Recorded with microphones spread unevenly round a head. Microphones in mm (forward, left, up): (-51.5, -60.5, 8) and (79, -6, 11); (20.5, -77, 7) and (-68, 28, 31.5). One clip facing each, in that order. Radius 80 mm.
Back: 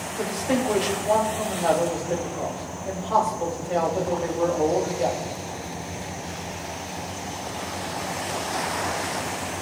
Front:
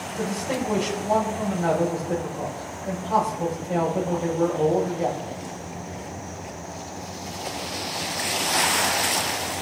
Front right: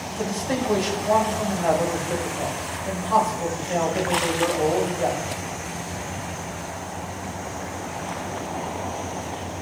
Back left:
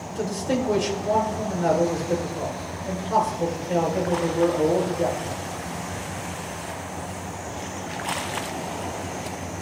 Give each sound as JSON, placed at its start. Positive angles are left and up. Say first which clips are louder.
{"t": 0.1, "sound": "a man speaking", "louder": "back 3 dB, back left 1 dB", "azimuth_deg": 105, "distance_m": 5.0}